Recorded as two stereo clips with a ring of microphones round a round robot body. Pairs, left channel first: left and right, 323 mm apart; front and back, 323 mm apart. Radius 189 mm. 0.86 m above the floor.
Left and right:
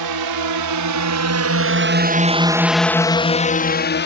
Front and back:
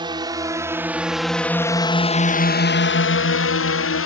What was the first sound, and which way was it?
A drone, 105° right.